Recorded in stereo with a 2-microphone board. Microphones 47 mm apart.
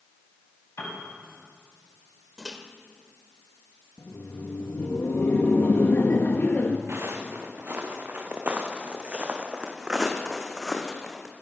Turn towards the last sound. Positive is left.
turn(degrees=10)  # may be behind; listen again after turning